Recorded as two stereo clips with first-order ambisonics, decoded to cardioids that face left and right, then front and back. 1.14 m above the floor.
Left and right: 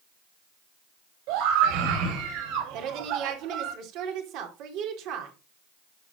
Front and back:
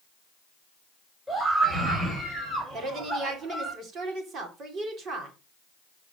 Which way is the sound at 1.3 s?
100° right.